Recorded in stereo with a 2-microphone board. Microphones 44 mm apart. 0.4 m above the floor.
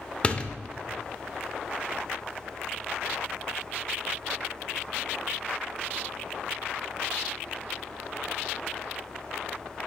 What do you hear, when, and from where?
0.2 s a door slam: 25° left (ahead or behind), 0.6 m